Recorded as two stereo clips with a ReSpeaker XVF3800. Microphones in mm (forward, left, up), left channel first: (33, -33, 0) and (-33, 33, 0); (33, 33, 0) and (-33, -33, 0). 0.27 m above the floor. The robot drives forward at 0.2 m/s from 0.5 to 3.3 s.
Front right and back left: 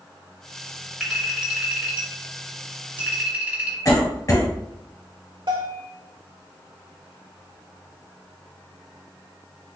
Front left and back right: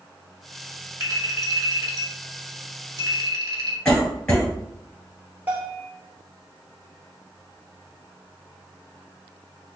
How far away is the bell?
About 1.1 m.